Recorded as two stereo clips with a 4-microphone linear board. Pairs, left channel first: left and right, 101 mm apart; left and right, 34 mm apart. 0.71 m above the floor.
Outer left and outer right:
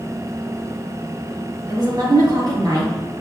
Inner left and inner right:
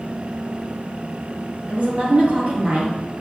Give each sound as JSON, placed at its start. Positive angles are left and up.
{"t": 1.7, "sound": "a woman speaking", "side_deg": -45, "distance_m": 1.2}